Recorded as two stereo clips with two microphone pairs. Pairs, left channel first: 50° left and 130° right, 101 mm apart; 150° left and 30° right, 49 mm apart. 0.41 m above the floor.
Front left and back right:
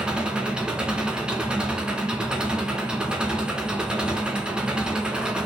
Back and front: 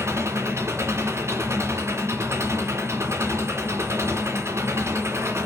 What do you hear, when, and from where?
0.0 s an engine running: 50° right, 2.5 m